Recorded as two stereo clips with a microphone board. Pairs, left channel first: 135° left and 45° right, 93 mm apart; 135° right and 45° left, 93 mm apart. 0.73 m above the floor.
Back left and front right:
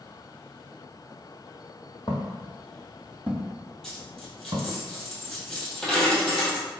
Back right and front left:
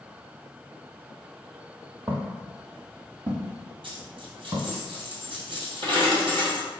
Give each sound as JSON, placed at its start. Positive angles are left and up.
{"t": 2.1, "sound": "footsteps", "azimuth_deg": 100, "distance_m": 1.2}
{"t": 3.8, "sound": "a dropped coin", "azimuth_deg": 50, "distance_m": 1.6}